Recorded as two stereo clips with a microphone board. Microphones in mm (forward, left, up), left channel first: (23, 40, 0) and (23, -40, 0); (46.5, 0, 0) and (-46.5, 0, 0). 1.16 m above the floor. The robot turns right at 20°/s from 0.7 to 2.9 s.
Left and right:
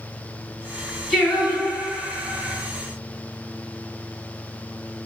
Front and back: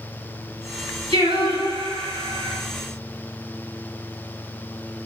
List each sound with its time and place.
1.1 s singing: 170° left, 4 m; by 2.6 s 160° right, 4 m